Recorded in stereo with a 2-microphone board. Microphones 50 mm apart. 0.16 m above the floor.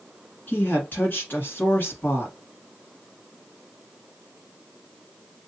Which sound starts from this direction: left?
A woman speaking, at 0.5 s.